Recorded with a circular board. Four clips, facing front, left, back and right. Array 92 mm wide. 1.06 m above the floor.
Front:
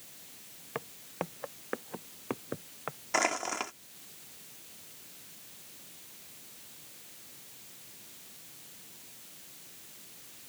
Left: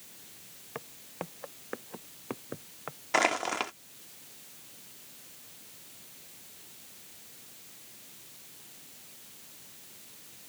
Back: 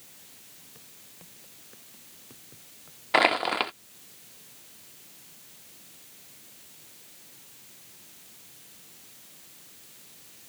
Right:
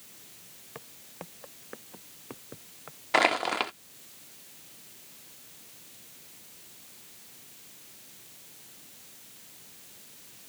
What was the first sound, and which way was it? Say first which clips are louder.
Footsteps: left 5 dB, front 22 dB; 15° left.